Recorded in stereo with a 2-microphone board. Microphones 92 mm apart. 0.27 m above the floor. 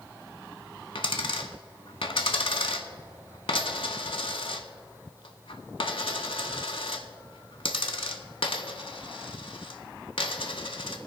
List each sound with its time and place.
0.9 s a dropped coin: 70° left (ahead or behind), 0.9 m